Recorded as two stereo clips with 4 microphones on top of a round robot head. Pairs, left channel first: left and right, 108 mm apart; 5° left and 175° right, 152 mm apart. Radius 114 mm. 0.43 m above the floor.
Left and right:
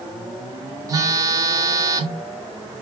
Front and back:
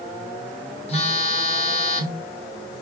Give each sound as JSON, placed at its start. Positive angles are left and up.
{"t": 0.9, "sound": "a phone buzzing", "azimuth_deg": -40, "distance_m": 1.3}